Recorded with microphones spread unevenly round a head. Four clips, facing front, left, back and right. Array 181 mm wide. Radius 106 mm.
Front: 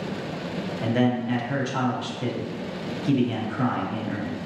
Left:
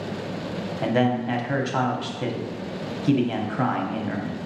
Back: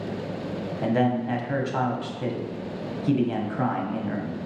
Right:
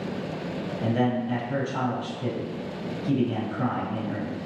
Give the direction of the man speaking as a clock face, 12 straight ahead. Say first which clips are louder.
Left 3 dB, even; 9 o'clock.